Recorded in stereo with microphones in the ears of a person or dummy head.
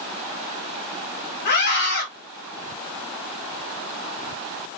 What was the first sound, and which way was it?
A scream, 45° left (ahead or behind).